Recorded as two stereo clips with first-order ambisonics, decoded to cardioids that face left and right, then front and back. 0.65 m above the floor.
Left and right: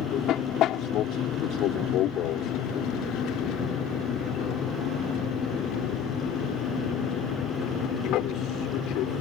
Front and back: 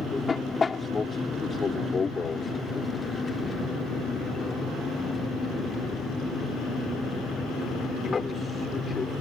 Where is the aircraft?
65° left.